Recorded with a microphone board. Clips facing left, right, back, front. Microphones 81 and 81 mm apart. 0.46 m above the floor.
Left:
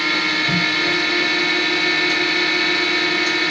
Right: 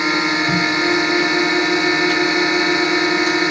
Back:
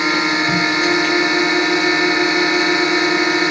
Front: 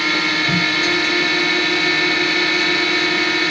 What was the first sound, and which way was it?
A drone, 135° right.